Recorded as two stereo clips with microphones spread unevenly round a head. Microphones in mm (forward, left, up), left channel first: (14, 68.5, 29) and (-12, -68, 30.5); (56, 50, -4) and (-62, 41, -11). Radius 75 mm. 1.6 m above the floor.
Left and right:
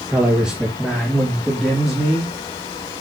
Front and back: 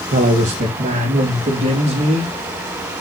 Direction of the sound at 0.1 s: 175° left.